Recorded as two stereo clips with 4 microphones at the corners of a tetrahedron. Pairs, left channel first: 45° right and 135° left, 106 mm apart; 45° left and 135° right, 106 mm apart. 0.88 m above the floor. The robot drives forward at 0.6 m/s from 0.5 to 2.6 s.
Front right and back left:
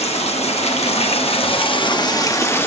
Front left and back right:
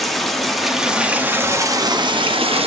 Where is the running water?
45° right, 1.3 m; by 2.7 s 115° right, 1.0 m.